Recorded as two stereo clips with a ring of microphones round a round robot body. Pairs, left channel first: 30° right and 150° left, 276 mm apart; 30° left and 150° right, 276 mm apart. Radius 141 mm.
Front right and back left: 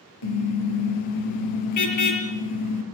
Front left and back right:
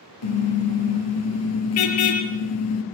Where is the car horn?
5° right, 5.5 m.